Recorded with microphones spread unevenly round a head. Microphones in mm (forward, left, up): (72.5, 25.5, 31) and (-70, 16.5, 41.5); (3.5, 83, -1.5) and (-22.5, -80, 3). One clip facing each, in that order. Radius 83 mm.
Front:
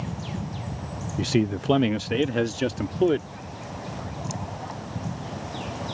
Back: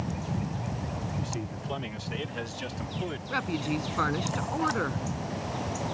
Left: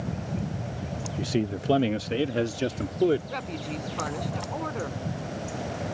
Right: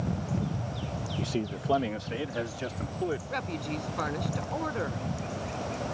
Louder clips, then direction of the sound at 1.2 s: Front 12 dB, left 5 dB; 5° left.